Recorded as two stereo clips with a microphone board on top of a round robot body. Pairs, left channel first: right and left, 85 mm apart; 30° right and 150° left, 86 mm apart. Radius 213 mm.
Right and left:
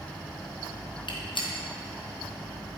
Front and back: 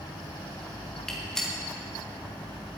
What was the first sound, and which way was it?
A gunshot, 115° right.